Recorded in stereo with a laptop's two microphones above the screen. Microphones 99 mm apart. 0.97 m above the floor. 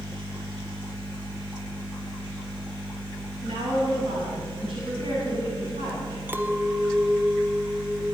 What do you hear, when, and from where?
3.4 s a woman speaking: 65° right (ahead or behind), 8 m
6.3 s a clink: 20° right (ahead or behind), 1.3 m